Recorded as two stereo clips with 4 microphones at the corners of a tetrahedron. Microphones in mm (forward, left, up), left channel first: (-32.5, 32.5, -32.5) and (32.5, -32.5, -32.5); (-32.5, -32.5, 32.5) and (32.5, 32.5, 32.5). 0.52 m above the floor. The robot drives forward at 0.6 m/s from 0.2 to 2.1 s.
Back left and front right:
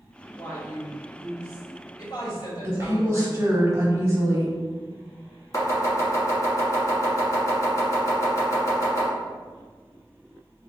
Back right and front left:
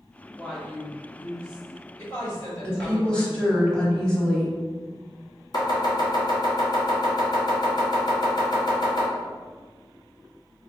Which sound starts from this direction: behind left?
A woman speaking, at 0.3 s.